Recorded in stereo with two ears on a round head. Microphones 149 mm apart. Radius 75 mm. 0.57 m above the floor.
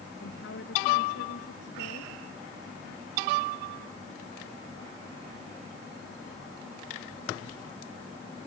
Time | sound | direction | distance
0.2 | a woman speaking | 75° left (ahead or behind) | ?